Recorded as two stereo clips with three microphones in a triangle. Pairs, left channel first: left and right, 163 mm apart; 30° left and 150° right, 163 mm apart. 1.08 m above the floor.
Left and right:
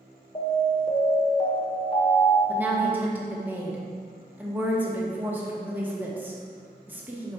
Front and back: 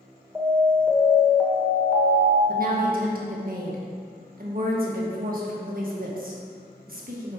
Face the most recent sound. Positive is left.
turn(degrees=-170)